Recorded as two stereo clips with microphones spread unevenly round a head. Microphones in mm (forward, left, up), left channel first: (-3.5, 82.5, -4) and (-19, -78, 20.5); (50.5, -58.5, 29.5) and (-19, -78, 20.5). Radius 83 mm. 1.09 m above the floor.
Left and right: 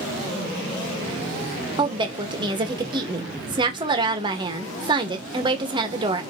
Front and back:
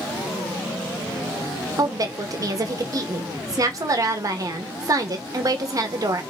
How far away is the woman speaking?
About 0.9 m.